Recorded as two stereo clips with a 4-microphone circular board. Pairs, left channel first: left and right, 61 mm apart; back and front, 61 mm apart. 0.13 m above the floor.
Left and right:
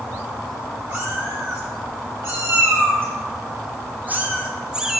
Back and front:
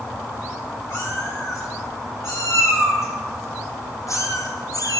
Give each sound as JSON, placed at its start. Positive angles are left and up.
{"t": 0.9, "sound": "a cat meowing", "azimuth_deg": -135, "distance_m": 6.0}